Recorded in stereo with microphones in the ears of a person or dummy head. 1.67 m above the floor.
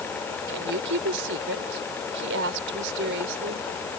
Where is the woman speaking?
65° right (ahead or behind).